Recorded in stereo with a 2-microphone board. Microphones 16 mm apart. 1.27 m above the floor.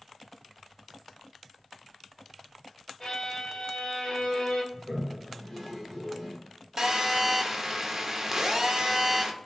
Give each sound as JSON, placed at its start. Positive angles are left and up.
{"t": 3.0, "sound": "a violin", "side_deg": 50, "distance_m": 1.3}
{"t": 4.7, "sound": "a toilet flushing", "side_deg": 15, "distance_m": 2.0}
{"t": 6.8, "sound": "a phone buzzing", "side_deg": -30, "distance_m": 0.6}